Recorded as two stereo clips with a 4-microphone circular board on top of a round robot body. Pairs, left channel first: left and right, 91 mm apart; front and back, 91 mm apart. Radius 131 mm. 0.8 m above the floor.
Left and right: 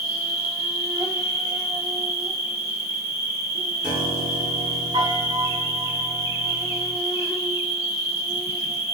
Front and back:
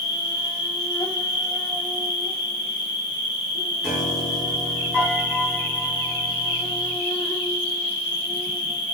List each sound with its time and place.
0.0 s an insect: 30° right, 1.1 m
3.8 s a piano: 85° right, 2 m